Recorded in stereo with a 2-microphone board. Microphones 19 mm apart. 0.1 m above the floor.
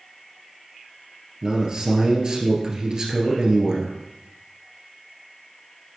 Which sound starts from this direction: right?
A man speaking, at 1.4 s.